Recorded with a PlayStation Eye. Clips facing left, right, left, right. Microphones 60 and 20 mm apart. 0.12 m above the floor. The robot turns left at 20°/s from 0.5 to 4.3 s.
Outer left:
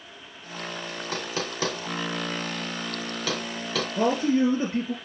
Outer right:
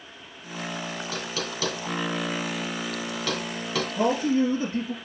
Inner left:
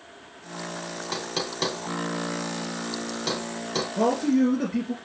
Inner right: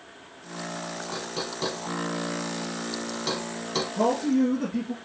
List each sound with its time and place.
1.1 s knocking: 50° left (ahead or behind), 1.8 m; by 3.9 s centre (ahead or behind), 1.8 m
4.0 s a man speaking: 45° left (ahead or behind), 1.7 m; by 4.9 s 40° left (ahead or behind), 1.7 m